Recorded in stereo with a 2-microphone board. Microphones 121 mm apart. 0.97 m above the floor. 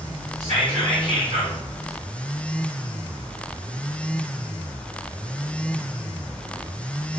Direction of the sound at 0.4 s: 80° right.